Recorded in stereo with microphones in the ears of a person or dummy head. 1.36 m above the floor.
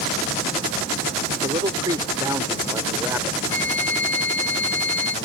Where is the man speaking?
30° right (ahead or behind); by 3.4 s 15° right (ahead or behind).